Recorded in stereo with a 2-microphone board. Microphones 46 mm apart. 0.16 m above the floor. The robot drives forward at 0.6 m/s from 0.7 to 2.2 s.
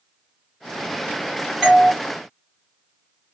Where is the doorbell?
Centre (ahead or behind), 1.5 m.